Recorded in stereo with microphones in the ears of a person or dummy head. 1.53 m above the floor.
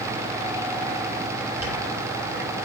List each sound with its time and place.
1.6 s a dropped coin: 10° right (ahead or behind), 1.9 m